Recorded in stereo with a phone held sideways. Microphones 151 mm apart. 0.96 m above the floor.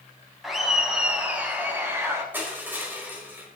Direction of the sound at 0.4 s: Centre (ahead or behind).